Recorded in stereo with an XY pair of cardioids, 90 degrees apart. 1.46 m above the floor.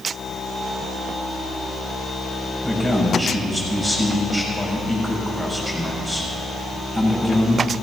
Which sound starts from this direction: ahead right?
A man speaking, at 2.6 s.